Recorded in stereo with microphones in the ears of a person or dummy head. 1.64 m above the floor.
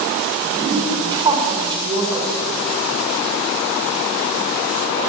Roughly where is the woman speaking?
Right.